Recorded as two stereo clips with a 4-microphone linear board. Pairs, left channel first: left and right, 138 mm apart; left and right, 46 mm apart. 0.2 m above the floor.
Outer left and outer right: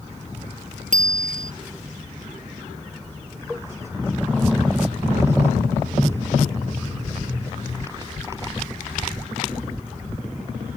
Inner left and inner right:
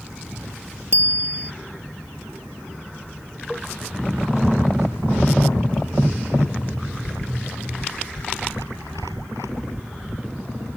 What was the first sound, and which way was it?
A bicycle bell, 70° right (ahead or behind).